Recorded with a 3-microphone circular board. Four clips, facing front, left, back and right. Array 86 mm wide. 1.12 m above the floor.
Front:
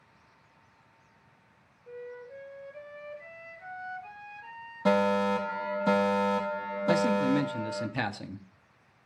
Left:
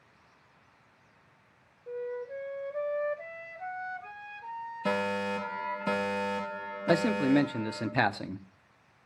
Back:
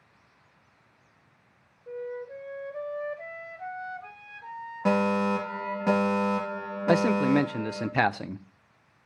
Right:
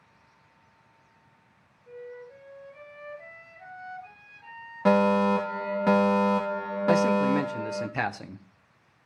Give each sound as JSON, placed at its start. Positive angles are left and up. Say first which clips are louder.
{"t": 1.9, "sound": "a flute", "louder": "left 6 dB, back 7 dB", "azimuth_deg": 145, "distance_m": 1.9}
{"t": 4.8, "sound": "a fire alarm", "louder": "right 10 dB, even", "azimuth_deg": -105, "distance_m": 3.0}
{"t": 6.9, "sound": "a man speaking", "louder": "right 3 dB, back 3 dB", "azimuth_deg": 160, "distance_m": 0.5}